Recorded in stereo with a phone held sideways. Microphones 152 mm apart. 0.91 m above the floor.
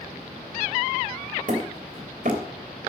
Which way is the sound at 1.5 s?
55° right (ahead or behind).